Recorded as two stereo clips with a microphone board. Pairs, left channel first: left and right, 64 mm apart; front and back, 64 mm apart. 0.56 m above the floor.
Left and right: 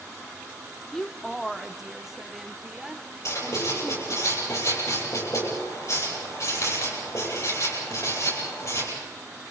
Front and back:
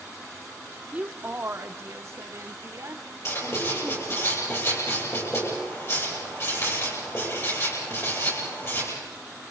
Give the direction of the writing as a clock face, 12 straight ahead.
10 o'clock.